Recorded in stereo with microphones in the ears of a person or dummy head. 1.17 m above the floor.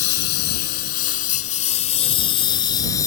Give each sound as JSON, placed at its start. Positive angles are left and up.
{"t": 0.0, "sound": "a lawn mower", "side_deg": 60}